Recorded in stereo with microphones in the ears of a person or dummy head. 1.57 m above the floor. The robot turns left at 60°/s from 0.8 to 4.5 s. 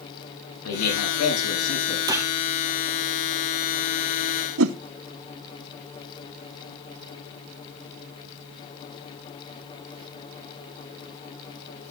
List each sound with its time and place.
0.6 s a man speaking: 110° left, 9.5 m; by 2.0 s 40° left, 9.5 m
2.1 s a gunshot: 20° right (ahead or behind), 0.8 m; by 2.3 s 10° right (ahead or behind), 0.8 m
4.6 s a whoosh: 70° right (ahead or behind), 1.0 m